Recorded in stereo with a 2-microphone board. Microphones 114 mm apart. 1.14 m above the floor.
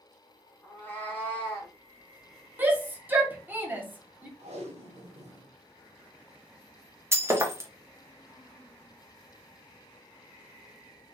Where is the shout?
15° right (ahead or behind), 0.8 m.